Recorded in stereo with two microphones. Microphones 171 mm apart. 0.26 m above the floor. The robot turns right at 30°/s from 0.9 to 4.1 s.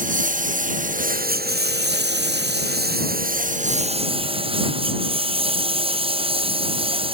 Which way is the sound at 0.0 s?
130° right.